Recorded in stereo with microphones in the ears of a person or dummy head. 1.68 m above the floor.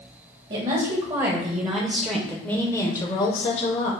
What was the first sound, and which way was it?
A woman speaking, 45° right (ahead or behind).